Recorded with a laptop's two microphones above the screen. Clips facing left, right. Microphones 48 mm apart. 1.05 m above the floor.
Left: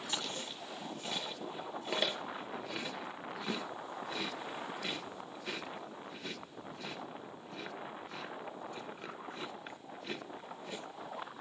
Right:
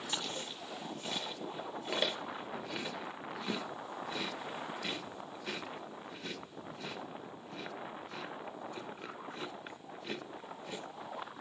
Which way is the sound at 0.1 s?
Centre (ahead or behind).